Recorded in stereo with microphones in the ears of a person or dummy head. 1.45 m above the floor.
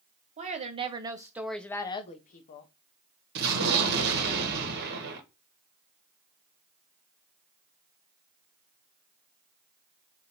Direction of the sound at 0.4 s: 35° right (ahead or behind).